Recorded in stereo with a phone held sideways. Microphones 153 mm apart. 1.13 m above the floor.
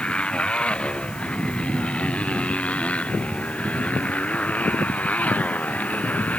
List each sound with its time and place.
0.0 s a motorcycle: 5° left (ahead or behind); by 6.4 s 10° left (ahead or behind)